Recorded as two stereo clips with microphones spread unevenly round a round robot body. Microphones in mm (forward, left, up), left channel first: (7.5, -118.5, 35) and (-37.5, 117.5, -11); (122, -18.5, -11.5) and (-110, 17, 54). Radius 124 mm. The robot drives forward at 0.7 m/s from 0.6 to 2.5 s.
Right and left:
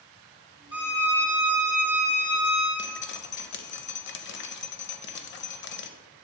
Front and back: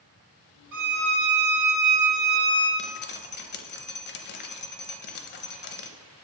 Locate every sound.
0.7 s a violin: 165° right, 2 m; by 2.7 s 170° right, 3.5 m
2.8 s dripping: 65° right, 0.5 m